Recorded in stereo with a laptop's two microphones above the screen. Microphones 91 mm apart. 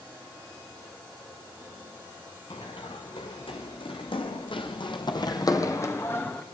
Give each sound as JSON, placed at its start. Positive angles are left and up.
{"t": 2.5, "sound": "running footsteps", "side_deg": 70, "distance_m": 5.0}